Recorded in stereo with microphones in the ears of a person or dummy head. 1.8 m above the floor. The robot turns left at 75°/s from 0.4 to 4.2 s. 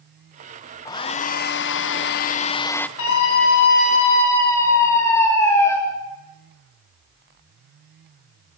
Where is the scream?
105° left, 8.5 m; by 5.8 s 15° left, 8.5 m.